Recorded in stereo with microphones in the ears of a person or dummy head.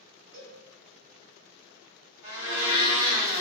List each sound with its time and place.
0.3 s a cowbell: 60° right (ahead or behind), 1.0 m
2.2 s a blender: 75° right (ahead or behind), 1.0 m